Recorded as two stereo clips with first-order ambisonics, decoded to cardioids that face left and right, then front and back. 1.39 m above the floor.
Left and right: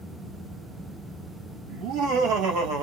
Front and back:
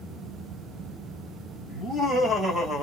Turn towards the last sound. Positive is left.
turn(degrees=-110)